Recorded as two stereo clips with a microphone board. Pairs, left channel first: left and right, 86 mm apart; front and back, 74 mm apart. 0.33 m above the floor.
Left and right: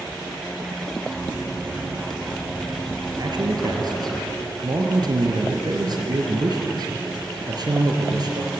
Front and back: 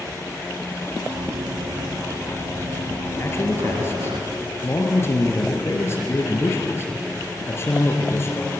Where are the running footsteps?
175° right, 4.5 m; by 4.2 s straight behind, 6 m.